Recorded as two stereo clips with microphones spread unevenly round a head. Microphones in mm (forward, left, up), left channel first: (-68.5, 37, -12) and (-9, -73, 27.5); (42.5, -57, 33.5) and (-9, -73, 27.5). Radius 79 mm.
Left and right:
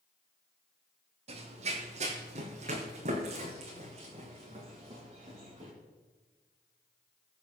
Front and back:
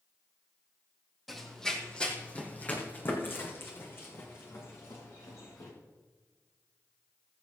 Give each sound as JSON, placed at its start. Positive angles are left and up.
{"t": 1.3, "sound": "running footsteps", "azimuth_deg": -65, "distance_m": 3.0}